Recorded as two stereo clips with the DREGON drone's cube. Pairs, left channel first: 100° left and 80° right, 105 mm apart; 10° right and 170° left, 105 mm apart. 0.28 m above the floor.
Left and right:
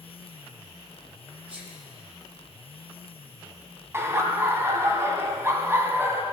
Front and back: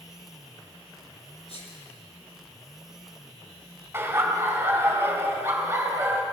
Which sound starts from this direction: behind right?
Laughter, at 3.9 s.